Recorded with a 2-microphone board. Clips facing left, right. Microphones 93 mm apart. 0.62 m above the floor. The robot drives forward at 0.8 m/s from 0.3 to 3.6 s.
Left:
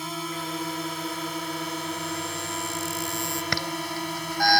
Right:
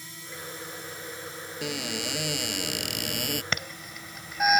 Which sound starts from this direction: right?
A cupboard door, at 1.6 s.